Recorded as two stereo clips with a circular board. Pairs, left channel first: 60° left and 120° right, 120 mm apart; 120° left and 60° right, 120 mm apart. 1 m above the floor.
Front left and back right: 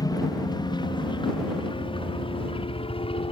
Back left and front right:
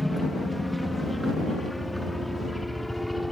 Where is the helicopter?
30° left.